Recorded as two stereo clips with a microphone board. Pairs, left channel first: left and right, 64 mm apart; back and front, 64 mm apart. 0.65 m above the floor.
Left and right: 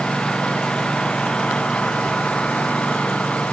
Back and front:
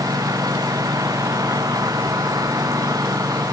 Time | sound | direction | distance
0.0 | a lawn mower | 15° left | ?